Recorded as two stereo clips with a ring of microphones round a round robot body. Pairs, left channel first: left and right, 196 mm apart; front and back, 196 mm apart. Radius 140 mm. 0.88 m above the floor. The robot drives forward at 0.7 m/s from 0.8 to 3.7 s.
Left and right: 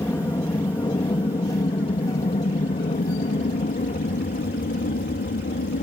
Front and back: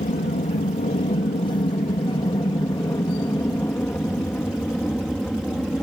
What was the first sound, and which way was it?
An aircraft, 25° left.